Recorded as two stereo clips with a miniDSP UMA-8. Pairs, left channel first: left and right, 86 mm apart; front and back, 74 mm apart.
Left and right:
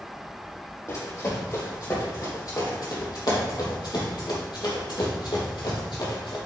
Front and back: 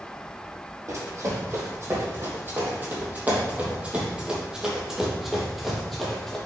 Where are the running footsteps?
140° left, 3.5 m; by 6.4 s 85° left, 3 m.